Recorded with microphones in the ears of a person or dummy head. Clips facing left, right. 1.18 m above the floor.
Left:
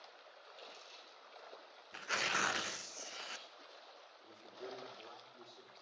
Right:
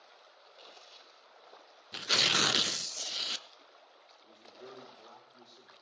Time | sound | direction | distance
0.4 | crumpling | 40° left (ahead or behind) | 6 m
1.9 | tearing paper | 40° right (ahead or behind) | 0.6 m
4.2 | a man speaking | 10° left (ahead or behind) | 3.5 m